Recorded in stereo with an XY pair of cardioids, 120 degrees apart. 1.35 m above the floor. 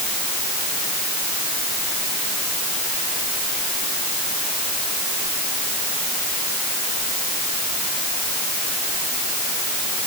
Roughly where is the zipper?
No zipper in this recording.